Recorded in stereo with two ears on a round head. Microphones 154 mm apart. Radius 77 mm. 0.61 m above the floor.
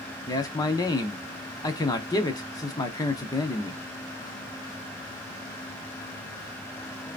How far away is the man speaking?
About 0.8 m.